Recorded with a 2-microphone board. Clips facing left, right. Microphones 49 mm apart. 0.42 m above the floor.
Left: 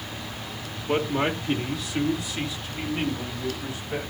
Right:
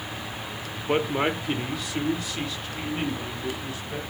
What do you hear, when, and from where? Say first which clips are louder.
0.9 s a man speaking: even; 20° right (ahead or behind), 1.0 m; by 4.1 s 20° left (ahead or behind), 2.5 m